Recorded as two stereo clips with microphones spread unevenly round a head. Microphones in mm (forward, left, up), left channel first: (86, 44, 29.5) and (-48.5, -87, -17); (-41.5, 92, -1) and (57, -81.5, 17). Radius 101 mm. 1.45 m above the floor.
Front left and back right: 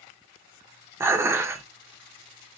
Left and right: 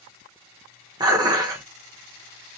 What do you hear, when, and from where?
1.0 s dishes clattering: 45° right, 0.6 m